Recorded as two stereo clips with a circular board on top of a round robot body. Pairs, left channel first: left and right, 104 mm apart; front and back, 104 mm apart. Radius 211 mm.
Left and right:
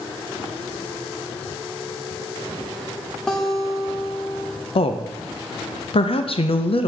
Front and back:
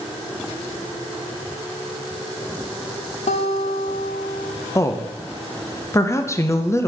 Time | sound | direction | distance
3.3 | a guitar | 5° left | 0.7 m
4.8 | a woman speaking | 60° left | 0.7 m